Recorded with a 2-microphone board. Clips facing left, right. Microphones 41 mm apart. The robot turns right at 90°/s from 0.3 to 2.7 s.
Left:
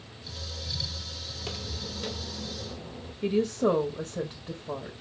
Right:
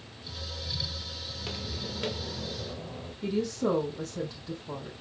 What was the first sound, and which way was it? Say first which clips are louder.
Footsteps: even; centre (ahead or behind).